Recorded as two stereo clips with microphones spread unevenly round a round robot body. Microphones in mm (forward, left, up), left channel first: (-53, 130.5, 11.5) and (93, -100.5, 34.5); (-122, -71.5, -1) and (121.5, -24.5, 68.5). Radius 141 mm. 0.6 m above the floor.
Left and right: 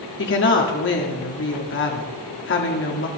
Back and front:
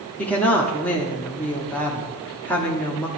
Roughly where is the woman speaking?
Behind left.